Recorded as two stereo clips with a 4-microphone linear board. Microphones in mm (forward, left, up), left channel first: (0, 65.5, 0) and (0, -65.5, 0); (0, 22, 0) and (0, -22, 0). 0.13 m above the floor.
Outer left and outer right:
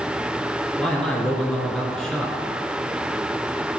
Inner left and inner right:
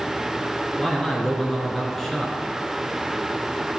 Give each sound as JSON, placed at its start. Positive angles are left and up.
{"t": 0.8, "sound": "a man speaking", "side_deg": 5, "distance_m": 2.0}